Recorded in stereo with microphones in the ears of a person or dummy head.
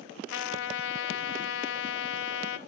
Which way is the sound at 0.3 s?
70° left (ahead or behind).